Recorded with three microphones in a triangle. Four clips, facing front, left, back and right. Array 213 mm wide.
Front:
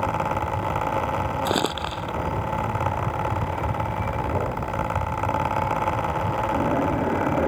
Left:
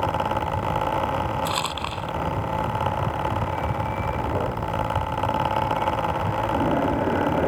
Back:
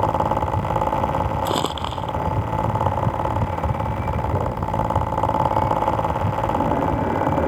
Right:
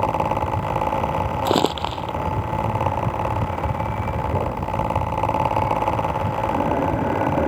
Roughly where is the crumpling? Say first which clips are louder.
Right 7 dB, back 1 dB; right.